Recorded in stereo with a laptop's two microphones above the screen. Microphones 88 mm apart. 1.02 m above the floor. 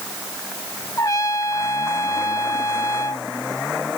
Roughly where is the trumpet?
Left.